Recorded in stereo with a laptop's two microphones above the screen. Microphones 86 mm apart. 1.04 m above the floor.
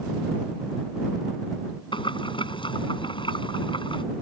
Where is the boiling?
75° left (ahead or behind).